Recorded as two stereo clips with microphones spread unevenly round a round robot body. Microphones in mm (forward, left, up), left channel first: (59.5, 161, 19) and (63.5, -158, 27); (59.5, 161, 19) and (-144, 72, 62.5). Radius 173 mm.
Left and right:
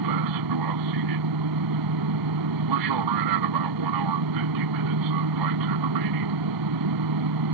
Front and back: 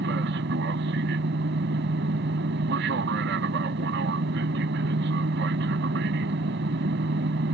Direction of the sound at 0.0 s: 105° right.